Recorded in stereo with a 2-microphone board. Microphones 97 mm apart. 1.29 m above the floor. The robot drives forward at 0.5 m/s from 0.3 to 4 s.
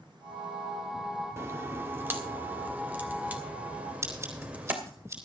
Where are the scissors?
30° right (ahead or behind), 5 m.